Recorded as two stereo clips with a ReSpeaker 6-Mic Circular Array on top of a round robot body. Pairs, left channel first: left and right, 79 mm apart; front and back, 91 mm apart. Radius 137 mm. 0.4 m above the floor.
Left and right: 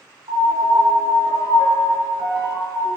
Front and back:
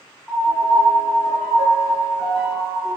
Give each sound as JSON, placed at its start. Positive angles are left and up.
{"t": 0.3, "sound": "a piano", "azimuth_deg": -90, "distance_m": 1.7}